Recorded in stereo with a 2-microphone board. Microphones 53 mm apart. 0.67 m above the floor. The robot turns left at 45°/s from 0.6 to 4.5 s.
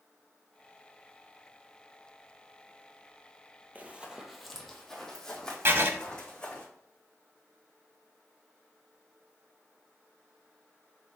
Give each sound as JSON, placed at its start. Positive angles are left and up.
{"t": 3.8, "sound": "running footsteps", "side_deg": -30, "distance_m": 0.8}
{"t": 5.7, "sound": "writing", "side_deg": -45, "distance_m": 0.7}